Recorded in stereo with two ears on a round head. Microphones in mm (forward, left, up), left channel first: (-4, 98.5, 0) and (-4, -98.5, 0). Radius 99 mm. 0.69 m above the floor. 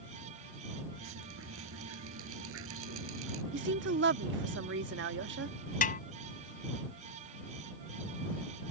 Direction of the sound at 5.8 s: 40° left (ahead or behind).